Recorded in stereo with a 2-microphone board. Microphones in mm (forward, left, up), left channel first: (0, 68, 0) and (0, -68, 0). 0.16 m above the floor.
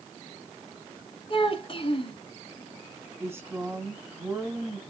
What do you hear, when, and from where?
1.3 s a child speaking: 40° left (ahead or behind), 1.3 m
3.2 s a woman speaking: 20° right (ahead or behind), 1.3 m